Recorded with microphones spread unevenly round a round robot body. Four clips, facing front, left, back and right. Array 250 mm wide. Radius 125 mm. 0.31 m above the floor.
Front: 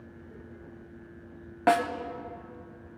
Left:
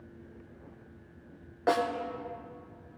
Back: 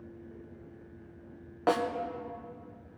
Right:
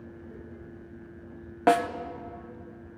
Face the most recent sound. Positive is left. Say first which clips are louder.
# right 5 dB, front 4 dB
turn(degrees=-65)